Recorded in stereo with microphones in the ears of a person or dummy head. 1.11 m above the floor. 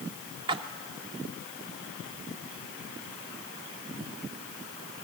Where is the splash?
25° right (ahead or behind), 1.2 m.